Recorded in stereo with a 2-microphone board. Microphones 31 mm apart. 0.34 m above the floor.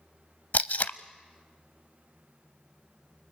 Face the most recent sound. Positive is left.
turn(degrees=65)  # may be behind; listen again after turning